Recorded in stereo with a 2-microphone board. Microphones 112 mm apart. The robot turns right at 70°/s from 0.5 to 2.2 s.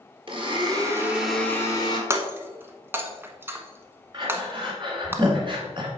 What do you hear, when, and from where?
0.3 s a blender: 55° right, 1.8 m; by 2.0 s 50° left, 1.8 m
2.1 s breaking glass: 25° right (ahead or behind), 1.0 m; by 5.1 s 20° right (ahead or behind), 1.0 m
4.1 s breathing: 45° right (ahead or behind), 1.8 m